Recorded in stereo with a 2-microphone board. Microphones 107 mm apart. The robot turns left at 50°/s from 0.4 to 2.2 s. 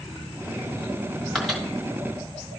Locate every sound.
1.4 s a microwave: centre (ahead or behind), 1.3 m; by 2.6 s 20° right (ahead or behind), 1.3 m